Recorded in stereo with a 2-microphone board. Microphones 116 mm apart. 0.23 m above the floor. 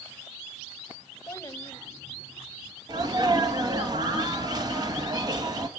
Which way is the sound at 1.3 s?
25° left (ahead or behind).